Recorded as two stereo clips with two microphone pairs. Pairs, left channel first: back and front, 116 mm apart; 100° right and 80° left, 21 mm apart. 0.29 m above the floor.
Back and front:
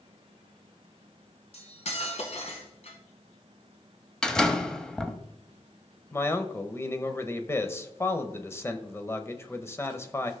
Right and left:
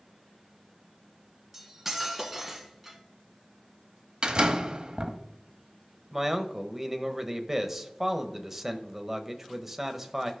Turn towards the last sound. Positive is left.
turn(degrees=140)